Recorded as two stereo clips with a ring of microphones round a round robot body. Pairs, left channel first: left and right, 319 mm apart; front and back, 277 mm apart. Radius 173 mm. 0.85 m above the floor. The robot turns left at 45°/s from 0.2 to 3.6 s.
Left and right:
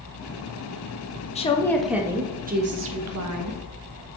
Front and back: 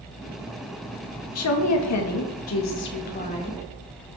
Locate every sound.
1.4 s a woman speaking: 20° left, 1.2 m; by 3.6 s 80° right, 1.2 m